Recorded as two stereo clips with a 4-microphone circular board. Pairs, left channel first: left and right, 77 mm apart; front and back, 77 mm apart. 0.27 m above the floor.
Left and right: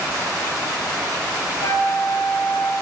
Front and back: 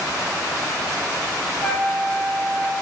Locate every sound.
1.6 s a flute: 75° left, 2.5 m